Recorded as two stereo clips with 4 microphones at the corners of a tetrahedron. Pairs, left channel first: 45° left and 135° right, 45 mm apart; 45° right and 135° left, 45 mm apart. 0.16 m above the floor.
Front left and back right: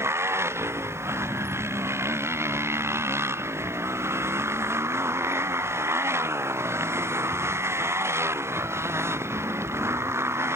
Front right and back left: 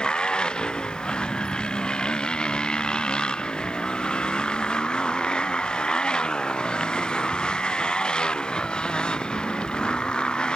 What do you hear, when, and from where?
0.0 s a motorcycle: 115° right